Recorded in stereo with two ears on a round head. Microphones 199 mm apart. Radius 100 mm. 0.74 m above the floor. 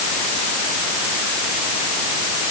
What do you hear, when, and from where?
Only background noise.